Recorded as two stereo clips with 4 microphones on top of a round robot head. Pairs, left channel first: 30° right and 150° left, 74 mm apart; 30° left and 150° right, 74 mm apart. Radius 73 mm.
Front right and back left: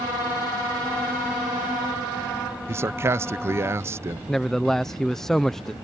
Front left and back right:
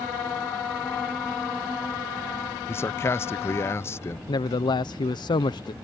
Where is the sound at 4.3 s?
55° left.